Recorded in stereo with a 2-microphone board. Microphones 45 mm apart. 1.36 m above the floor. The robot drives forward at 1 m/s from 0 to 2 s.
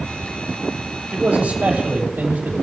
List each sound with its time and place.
1.1 s a man speaking: 25° right (ahead or behind), 3.5 m; by 2.6 s 35° right (ahead or behind), 2.5 m